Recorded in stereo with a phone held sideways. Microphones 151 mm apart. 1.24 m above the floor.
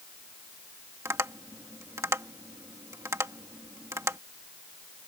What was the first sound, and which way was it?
Tapping, 20° right (ahead or behind).